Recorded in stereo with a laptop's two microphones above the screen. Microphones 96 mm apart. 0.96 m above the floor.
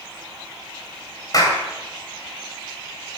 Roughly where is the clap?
Left.